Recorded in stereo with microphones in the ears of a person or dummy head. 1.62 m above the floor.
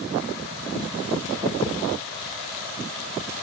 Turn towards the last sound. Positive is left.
turn(degrees=30)  # may be behind; listen again after turning